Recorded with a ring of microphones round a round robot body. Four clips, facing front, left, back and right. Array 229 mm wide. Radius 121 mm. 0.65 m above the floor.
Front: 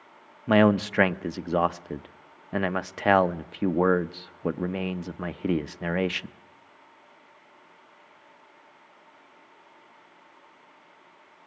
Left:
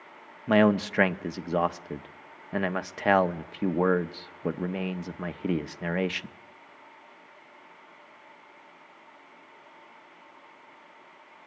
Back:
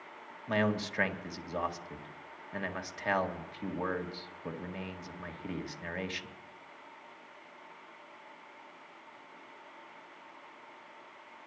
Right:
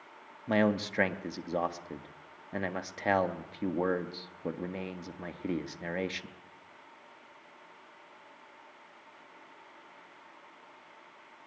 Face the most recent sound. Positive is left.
turn(degrees=20)